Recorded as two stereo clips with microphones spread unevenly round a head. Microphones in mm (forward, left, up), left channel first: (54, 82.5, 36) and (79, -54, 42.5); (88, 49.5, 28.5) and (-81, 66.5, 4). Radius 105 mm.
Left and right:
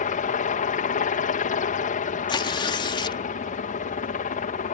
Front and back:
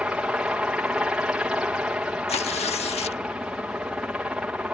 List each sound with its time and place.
0.0 s a helicopter: 90° left
2.3 s tearing paper: 45° left